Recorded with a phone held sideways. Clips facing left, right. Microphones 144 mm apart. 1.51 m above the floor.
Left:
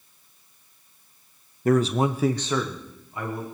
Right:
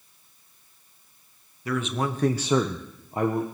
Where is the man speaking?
50° left (ahead or behind), 0.8 m; by 3.4 s 45° right (ahead or behind), 1.5 m.